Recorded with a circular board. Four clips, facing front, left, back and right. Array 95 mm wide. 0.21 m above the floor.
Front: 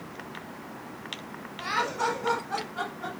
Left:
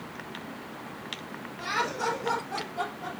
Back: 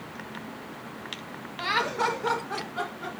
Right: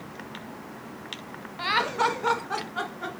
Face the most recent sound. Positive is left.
turn(degrees=-90)